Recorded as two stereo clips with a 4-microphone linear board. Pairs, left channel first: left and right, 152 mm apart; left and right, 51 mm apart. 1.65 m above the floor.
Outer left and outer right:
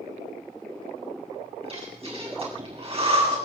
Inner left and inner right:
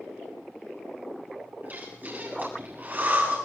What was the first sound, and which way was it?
Breathing, 40° right (ahead or behind).